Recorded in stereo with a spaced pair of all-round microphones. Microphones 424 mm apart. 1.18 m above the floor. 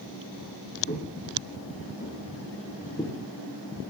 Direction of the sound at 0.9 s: 30° left (ahead or behind).